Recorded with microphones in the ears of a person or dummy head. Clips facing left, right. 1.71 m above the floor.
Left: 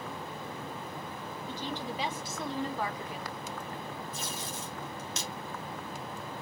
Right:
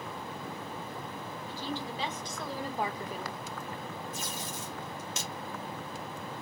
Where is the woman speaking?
20° left (ahead or behind), 1.5 m; by 3.4 s 60° right (ahead or behind), 0.7 m.